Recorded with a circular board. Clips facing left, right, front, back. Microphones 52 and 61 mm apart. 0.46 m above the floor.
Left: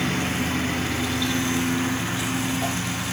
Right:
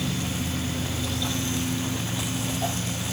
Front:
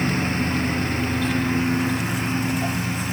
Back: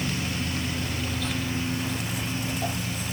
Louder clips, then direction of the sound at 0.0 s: Left 5 dB, front 7 dB; 50° left.